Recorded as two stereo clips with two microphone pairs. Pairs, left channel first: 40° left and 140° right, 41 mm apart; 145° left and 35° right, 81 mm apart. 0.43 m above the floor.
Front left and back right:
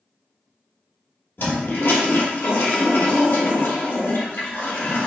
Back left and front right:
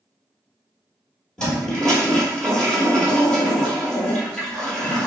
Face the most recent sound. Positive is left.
turn(degrees=65)